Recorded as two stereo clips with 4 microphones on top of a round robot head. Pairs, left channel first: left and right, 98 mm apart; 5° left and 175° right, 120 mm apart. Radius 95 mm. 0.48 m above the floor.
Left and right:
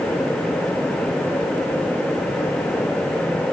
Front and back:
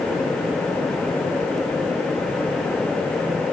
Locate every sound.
Only background noise.